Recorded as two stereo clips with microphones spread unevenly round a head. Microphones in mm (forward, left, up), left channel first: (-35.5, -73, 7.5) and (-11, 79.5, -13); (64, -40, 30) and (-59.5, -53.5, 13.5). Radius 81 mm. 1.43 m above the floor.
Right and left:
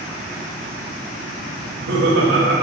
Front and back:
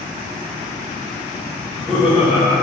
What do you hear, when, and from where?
1.6 s laughter: 95° left, 2 m